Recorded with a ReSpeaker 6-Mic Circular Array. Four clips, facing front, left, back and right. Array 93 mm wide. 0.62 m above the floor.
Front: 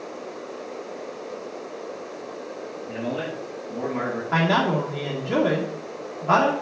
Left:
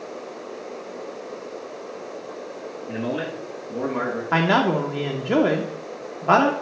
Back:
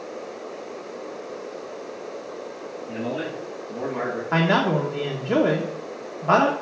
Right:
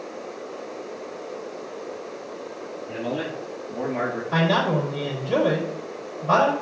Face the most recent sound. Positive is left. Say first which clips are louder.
# left 2 dB, back 1 dB
turn(degrees=110)